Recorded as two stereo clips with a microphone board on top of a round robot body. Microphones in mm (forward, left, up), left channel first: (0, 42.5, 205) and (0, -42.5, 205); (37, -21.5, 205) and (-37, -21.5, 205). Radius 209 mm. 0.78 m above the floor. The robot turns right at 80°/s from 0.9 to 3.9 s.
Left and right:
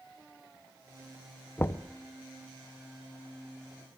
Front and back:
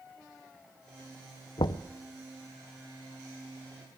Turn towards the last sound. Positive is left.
turn(degrees=-155)